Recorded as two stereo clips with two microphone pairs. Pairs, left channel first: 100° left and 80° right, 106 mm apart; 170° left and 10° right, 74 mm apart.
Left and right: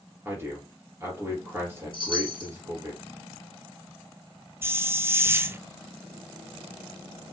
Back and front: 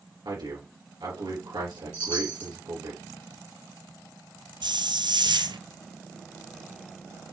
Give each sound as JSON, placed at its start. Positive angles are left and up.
{"t": 0.2, "sound": "a man speaking", "azimuth_deg": -15, "distance_m": 3.5}
{"t": 1.9, "sound": "a chime", "azimuth_deg": 120, "distance_m": 3.0}
{"t": 4.6, "sound": "a hiss", "azimuth_deg": -10, "distance_m": 0.7}